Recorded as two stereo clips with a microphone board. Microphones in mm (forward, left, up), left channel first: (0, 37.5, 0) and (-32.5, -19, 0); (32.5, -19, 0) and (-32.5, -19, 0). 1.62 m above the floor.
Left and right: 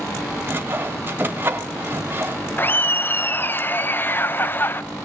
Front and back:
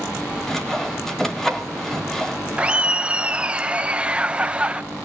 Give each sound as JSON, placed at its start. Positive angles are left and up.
{"t": 0.5, "sound": "sawing", "azimuth_deg": -85, "distance_m": 1.8}
{"t": 2.6, "sound": "laughter", "azimuth_deg": 115, "distance_m": 0.9}